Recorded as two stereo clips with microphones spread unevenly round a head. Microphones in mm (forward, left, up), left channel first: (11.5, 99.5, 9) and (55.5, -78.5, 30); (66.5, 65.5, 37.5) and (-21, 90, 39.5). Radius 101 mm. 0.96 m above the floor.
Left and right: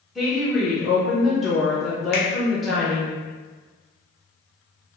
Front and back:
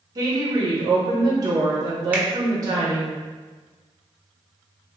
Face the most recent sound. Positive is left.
turn(degrees=90)